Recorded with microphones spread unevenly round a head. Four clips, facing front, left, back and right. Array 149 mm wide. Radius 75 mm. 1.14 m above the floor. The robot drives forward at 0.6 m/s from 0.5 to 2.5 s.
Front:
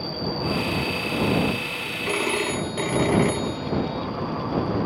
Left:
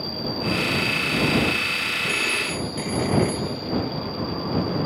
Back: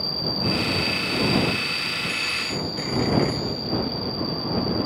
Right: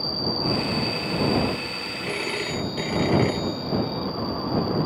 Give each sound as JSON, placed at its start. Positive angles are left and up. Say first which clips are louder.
{"t": 0.0, "sound": "an insect", "louder": "even, front 1 dB", "azimuth_deg": -155}
{"t": 2.1, "sound": "a phone ringing", "louder": "right 2 dB, front 6 dB", "azimuth_deg": -10}